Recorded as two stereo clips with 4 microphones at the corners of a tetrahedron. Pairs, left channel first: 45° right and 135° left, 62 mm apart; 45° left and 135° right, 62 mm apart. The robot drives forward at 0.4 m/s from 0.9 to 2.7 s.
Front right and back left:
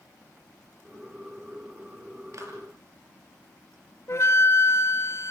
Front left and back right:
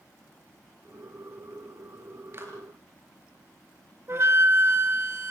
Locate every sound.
2.3 s a clap: 175° left, 5.5 m
4.1 s a flute: 90° right, 1.6 m